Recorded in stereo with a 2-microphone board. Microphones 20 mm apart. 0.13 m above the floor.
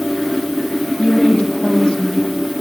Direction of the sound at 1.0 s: 65° left (ahead or behind).